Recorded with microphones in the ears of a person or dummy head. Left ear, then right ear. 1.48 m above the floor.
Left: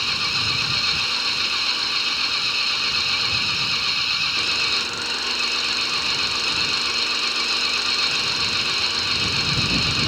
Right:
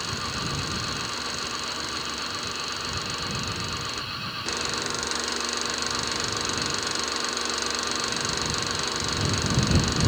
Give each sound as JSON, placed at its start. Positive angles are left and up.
{"t": 0.0, "sound": "an engine running", "side_deg": 70}